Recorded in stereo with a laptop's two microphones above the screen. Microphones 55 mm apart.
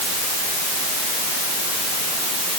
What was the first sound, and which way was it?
Only background noise.